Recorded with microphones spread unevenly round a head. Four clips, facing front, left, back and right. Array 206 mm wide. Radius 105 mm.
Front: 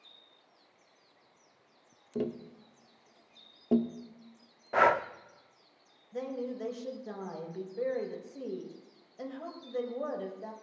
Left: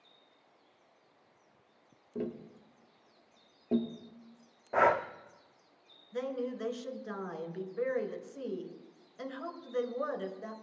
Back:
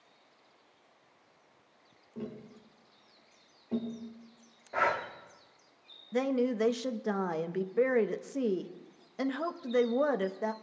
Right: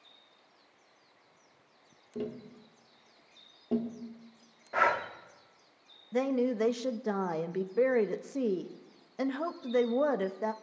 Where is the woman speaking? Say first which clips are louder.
Right 7 dB, back 8 dB; 130° right, 0.9 m.